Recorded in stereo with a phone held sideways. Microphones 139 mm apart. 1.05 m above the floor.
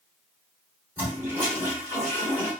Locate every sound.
1.0 s a toilet flushing: 15° right (ahead or behind), 2.5 m